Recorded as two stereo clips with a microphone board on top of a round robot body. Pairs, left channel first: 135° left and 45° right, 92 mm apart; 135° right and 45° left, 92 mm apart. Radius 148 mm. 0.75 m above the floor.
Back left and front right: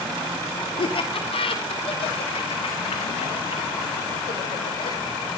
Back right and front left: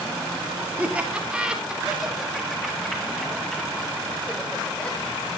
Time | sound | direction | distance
0.8 | laughter | 120° left | 3 m